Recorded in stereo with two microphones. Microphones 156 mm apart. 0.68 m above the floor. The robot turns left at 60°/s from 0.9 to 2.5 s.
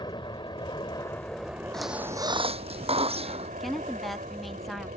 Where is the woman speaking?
Centre (ahead or behind).